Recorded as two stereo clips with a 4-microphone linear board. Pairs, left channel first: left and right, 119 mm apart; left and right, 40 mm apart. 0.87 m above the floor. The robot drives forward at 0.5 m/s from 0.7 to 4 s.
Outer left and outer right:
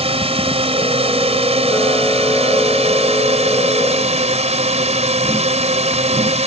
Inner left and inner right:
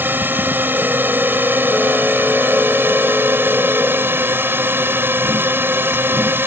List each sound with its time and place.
0.0 s a drone: 60° right (ahead or behind); by 6.5 s 75° right (ahead or behind)